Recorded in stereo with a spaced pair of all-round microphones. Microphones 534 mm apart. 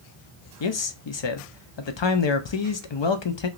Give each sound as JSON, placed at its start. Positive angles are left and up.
{"t": 0.6, "sound": "a man speaking", "side_deg": 55, "distance_m": 0.6}